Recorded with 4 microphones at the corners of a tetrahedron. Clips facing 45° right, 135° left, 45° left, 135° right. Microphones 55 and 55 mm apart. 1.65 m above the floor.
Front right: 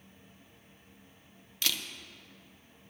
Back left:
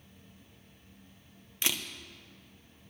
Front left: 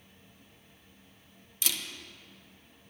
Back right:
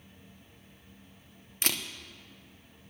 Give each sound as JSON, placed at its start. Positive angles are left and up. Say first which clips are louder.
{"t": 1.6, "sound": "a camera shutter", "louder": "back left 1 dB, back right 3 dB", "azimuth_deg": -160, "distance_m": 0.8}